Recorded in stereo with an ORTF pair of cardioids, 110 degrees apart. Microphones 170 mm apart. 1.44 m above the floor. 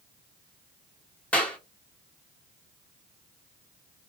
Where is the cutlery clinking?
I don't hear cutlery clinking.